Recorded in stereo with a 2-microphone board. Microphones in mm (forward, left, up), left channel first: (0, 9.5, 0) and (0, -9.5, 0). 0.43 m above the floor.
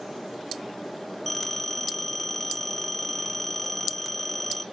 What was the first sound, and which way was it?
A phone ringing, 10° left (ahead or behind).